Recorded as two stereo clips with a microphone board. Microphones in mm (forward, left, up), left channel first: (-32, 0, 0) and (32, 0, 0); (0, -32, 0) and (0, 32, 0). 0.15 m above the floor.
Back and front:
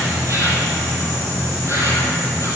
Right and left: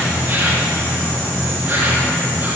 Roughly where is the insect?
Ahead left.